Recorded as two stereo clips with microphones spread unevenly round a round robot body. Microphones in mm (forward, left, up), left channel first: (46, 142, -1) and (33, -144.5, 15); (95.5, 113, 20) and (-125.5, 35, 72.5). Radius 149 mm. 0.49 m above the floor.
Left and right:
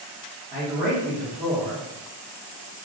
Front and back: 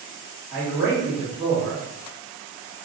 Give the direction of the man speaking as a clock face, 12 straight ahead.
2 o'clock.